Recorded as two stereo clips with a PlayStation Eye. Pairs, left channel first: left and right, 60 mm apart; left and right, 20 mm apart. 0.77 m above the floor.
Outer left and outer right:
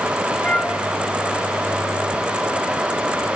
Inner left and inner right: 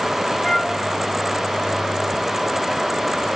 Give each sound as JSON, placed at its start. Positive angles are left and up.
{"t": 0.4, "sound": "a flute", "side_deg": 20, "distance_m": 2.5}